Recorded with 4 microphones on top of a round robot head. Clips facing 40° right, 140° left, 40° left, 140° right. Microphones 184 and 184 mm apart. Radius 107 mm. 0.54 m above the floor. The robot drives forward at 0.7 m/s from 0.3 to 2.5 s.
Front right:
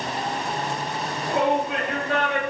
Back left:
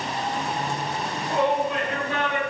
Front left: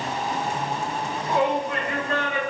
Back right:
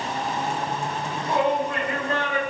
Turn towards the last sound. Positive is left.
turn(degrees=-80)